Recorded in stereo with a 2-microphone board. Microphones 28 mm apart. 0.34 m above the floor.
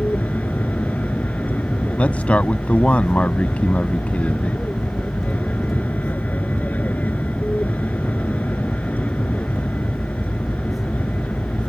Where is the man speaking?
55° left (ahead or behind).